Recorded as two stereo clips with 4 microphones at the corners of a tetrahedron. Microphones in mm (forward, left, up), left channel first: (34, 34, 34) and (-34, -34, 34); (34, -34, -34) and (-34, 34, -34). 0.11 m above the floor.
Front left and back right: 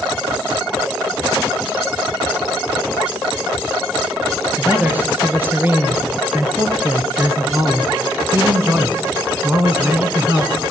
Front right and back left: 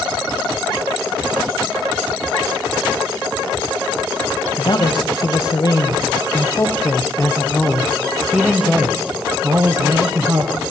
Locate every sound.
4.6 s a man speaking: 65° right, 3 m; by 10.5 s 165° left, 2 m